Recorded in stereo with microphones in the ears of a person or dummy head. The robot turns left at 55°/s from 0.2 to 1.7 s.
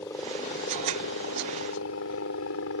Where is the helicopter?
160° left; by 2.8 s 75° left.